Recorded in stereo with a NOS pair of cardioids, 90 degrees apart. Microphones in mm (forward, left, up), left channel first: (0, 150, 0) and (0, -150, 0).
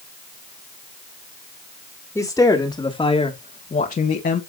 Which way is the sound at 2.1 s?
5° left.